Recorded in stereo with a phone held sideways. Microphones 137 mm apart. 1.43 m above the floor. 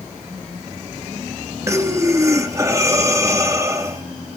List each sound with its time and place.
1.7 s breathing: 20° right (ahead or behind), 1.4 m